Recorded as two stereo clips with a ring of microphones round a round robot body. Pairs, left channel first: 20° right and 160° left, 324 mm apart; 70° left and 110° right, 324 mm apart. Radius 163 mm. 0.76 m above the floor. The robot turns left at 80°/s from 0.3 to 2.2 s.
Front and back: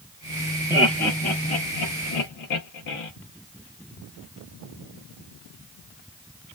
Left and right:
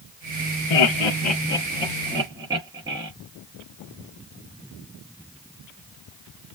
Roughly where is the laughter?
Left.